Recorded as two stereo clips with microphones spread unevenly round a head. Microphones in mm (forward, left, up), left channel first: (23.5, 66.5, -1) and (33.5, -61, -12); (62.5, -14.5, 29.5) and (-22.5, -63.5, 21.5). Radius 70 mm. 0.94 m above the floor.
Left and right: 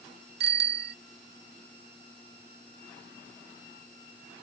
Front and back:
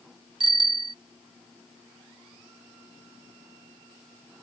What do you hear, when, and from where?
0.4 s a bicycle bell: 110° right